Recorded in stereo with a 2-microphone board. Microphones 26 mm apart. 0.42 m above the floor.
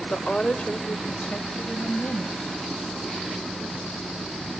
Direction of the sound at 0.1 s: 25° left (ahead or behind).